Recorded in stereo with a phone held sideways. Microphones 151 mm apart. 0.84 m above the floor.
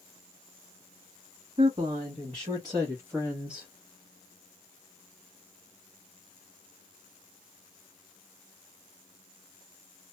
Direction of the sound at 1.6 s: 50° right (ahead or behind).